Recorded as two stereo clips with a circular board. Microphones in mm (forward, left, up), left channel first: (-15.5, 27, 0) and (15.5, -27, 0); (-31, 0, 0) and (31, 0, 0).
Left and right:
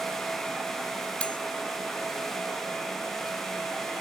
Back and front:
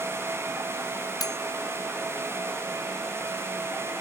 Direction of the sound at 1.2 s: 170° right.